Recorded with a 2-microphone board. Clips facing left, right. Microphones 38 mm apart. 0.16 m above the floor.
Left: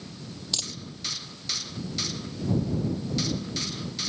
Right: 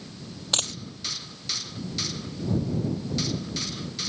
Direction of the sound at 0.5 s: 55° right (ahead or behind).